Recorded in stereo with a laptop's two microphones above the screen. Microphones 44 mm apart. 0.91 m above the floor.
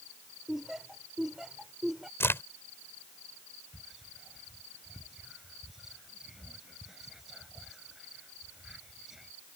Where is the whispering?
5° right (ahead or behind).